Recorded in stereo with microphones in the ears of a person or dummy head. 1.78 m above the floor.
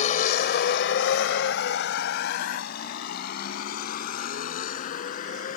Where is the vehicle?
45° left (ahead or behind); by 5.6 s 50° left (ahead or behind).